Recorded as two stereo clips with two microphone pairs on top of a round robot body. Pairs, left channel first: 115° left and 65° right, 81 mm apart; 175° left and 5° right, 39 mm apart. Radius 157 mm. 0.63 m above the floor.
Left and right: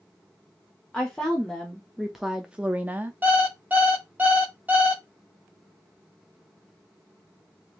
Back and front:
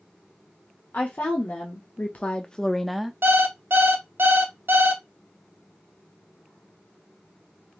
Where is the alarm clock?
5° left, 0.7 m.